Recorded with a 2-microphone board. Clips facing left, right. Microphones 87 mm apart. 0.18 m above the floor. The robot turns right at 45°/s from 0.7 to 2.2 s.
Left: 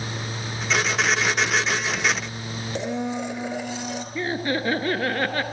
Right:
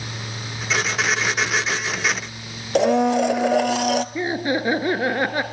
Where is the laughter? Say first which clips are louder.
Right 3 dB; 15° right (ahead or behind), 2 m.